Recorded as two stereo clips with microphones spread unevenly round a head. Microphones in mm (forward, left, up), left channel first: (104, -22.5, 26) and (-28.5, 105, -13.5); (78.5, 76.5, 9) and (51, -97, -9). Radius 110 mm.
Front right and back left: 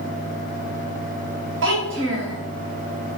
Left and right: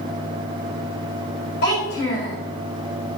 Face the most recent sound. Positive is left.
turn(degrees=120)